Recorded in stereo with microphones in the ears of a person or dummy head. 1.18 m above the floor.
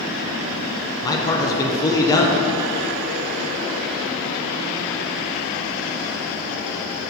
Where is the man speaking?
20° left (ahead or behind), 0.7 m.